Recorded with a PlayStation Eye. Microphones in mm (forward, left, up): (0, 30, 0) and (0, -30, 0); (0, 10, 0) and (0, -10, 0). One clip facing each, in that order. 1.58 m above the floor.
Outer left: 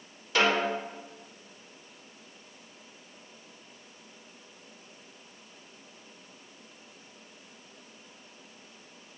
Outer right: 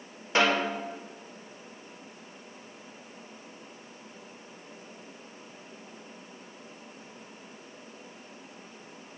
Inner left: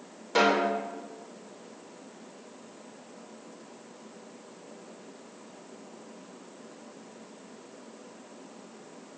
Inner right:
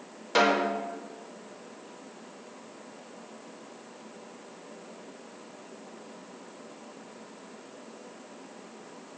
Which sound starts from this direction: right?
A snare drum, at 0.3 s.